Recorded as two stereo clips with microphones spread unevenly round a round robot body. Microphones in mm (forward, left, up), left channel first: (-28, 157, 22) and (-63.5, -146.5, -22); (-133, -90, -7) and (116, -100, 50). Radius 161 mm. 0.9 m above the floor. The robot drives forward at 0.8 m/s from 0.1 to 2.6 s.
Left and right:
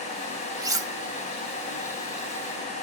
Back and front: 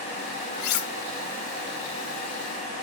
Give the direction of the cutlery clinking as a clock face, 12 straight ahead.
6 o'clock.